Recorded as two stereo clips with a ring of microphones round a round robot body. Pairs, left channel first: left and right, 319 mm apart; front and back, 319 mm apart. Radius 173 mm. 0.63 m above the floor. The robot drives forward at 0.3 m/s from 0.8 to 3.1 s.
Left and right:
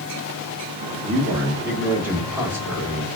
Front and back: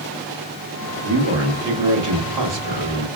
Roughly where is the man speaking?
Behind.